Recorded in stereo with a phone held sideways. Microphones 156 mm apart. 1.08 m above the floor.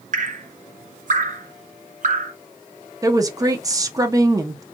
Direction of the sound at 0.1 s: 60° right (ahead or behind).